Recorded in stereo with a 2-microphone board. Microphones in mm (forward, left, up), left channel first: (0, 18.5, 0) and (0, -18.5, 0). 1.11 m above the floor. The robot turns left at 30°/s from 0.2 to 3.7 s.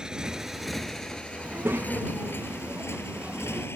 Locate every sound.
0.0 s a motorcycle: 20° right (ahead or behind); by 3.8 s 75° left (ahead or behind)
1.4 s a child speaking: 80° right; by 3.7 s 150° right